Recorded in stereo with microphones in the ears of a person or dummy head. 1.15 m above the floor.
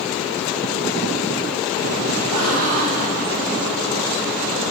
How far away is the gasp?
About 6 m.